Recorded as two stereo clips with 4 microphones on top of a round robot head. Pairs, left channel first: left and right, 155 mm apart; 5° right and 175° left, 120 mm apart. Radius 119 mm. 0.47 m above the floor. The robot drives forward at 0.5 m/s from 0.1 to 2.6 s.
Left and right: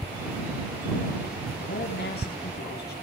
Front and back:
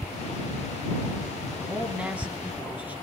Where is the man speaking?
100° left, 4.5 m; by 2.9 s 105° left, 4.5 m.